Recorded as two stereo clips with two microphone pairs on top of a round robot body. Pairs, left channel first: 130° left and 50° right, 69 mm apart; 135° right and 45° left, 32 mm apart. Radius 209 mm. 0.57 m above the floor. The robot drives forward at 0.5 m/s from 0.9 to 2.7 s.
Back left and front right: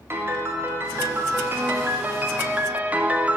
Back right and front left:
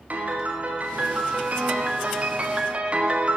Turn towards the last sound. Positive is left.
turn(degrees=20)